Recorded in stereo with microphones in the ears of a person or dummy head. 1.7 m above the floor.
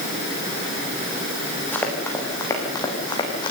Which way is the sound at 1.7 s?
10° left (ahead or behind).